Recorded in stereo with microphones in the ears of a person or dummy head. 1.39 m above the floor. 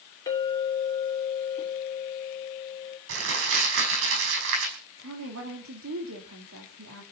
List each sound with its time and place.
0.3 s a clink: 20° left (ahead or behind), 3 m
3.1 s crumpling: 75° right (ahead or behind), 5 m
5.0 s a woman speaking: 85° right, 3 m